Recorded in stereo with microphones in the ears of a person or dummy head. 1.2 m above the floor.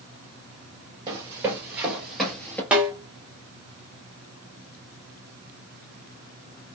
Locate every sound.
1.1 s running footsteps: 25° right (ahead or behind), 1.6 m; by 2.6 s 5° left (ahead or behind), 1.5 m
2.7 s a snare drum: 10° right (ahead or behind), 1.1 m